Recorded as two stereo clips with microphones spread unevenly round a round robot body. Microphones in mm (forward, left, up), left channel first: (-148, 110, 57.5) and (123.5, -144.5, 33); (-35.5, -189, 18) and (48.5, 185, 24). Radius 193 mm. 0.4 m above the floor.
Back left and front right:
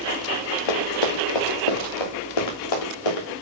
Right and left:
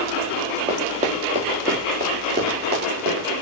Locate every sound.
0.7 s running footsteps: 155° left, 2 m; by 3.3 s 145° left, 3.5 m